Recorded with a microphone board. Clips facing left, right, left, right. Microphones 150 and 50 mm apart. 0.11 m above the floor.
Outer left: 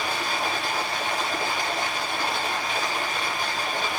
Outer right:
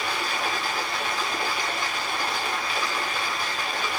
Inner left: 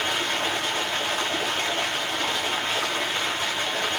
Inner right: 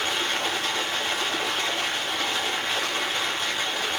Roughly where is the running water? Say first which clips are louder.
Outer left 1 dB, inner left 1 dB; left.